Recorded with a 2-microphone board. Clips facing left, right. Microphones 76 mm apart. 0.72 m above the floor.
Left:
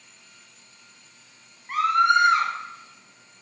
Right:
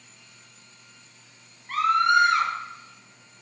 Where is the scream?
15° left (ahead or behind), 0.5 m.